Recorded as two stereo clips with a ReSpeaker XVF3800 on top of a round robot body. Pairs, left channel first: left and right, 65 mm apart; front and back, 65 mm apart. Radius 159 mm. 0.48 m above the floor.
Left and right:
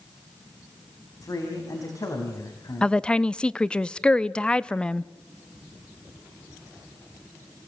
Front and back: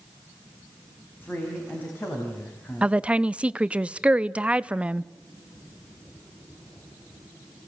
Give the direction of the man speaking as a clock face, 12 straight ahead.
10 o'clock.